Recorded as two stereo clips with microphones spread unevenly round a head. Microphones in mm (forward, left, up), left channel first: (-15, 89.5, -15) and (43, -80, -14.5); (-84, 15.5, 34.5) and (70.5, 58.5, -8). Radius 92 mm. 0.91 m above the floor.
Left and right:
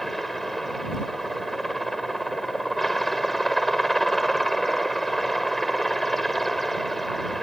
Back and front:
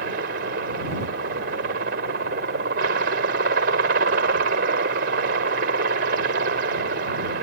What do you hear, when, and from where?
0.0 s a helicopter: 20° left